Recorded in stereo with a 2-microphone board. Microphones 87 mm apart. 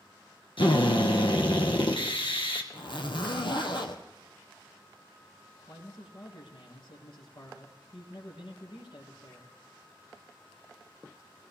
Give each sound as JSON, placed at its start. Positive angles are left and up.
{"t": 0.6, "sound": "a drill", "side_deg": 75, "distance_m": 2.0}
{"t": 2.7, "sound": "a zipper", "side_deg": 60, "distance_m": 1.8}
{"t": 5.7, "sound": "a man speaking", "side_deg": 75, "distance_m": 5.0}